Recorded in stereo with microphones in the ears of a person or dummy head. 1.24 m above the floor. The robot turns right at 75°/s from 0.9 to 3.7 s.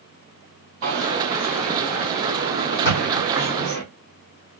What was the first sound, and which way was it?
A dropped coin, 50° right.